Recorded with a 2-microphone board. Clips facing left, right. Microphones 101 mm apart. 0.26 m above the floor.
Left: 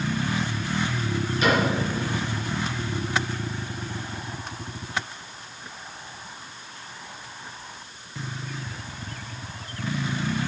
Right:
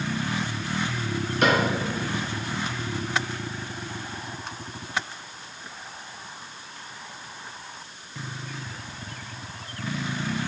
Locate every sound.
1.4 s a cupboard door: 65° right (ahead or behind), 3 m